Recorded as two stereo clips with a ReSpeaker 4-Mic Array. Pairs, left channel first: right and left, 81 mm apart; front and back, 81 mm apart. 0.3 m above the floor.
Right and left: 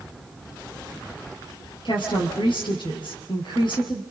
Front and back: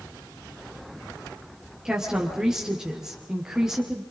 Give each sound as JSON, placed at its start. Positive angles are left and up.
{"t": 1.9, "sound": "a woman speaking", "azimuth_deg": -100, "distance_m": 5.0}